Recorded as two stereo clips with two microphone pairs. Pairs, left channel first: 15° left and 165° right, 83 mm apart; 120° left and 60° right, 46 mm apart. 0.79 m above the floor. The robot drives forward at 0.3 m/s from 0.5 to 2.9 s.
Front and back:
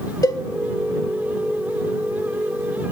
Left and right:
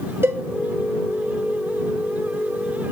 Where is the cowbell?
30° right, 0.6 m.